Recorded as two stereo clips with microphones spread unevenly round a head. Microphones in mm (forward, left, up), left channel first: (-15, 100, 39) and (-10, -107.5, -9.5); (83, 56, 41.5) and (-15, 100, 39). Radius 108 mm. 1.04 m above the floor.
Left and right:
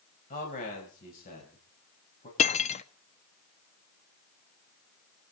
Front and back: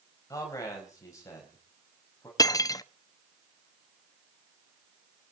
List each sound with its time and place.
0.3 s a man speaking: 35° left, 4.5 m; by 2.3 s 40° left, 5.5 m
2.4 s cutlery clinking: 35° left, 0.8 m